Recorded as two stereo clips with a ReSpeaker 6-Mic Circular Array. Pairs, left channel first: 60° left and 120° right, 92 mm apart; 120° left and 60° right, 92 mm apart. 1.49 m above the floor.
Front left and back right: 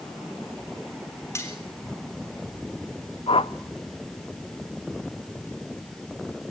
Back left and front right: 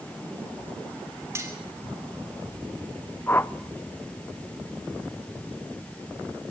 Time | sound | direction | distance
1.4 | cutlery clinking | straight ahead | 3 m
3.3 | a whoosh | 55° left | 0.6 m